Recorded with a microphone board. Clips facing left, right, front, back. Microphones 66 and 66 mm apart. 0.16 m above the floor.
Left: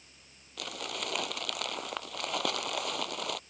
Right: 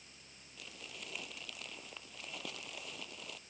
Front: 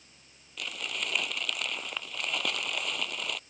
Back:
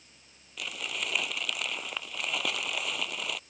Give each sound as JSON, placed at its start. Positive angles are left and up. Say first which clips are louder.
{"t": 0.6, "sound": "crumpling", "louder": "left 13 dB, even", "azimuth_deg": 95}